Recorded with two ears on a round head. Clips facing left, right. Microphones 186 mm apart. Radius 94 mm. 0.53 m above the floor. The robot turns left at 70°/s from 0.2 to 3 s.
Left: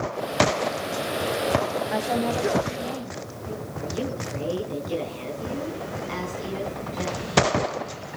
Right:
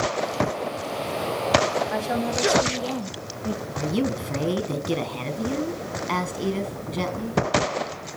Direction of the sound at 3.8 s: 70° right (ahead or behind).